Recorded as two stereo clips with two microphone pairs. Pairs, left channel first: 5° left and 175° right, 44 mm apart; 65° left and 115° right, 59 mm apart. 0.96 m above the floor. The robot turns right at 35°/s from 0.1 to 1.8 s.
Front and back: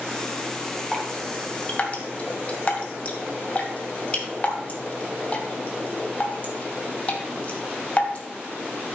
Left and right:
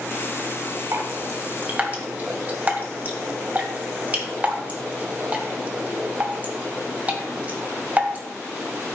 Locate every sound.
0.9 s dripping: 85° right, 1.7 m; by 8.2 s 55° right, 1.7 m